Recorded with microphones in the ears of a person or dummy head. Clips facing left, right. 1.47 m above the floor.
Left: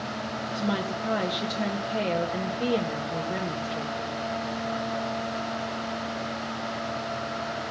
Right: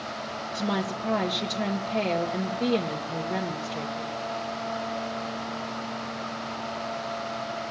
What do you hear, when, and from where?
0.5 s a woman speaking: centre (ahead or behind), 1.8 m